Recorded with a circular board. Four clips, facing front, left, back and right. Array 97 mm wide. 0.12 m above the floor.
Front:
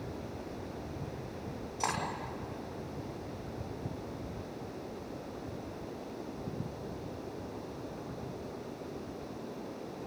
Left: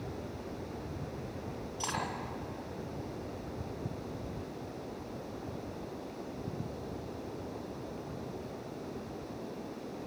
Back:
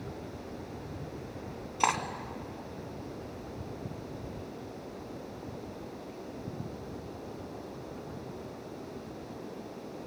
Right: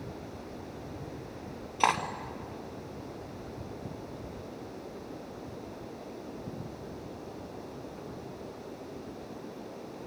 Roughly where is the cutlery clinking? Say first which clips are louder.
Right 11 dB, back 6 dB; behind right.